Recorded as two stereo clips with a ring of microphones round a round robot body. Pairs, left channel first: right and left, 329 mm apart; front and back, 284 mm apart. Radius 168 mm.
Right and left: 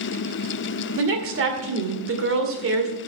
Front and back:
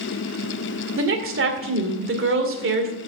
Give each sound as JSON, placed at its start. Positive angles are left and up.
{"t": 1.0, "sound": "a woman speaking", "azimuth_deg": 140, "distance_m": 2.0}